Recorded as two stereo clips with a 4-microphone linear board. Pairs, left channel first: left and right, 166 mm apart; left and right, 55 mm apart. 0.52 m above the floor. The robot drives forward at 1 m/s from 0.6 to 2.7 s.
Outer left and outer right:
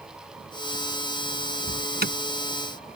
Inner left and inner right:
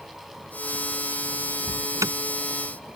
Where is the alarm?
80° right; by 2.1 s 75° right (ahead or behind).